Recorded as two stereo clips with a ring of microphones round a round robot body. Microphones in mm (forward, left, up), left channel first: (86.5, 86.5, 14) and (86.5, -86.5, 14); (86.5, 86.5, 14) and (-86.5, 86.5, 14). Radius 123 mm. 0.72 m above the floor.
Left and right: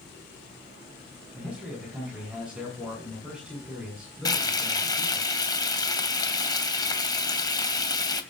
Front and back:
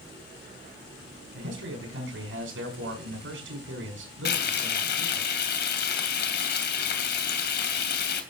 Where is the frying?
20° left, 2.5 m.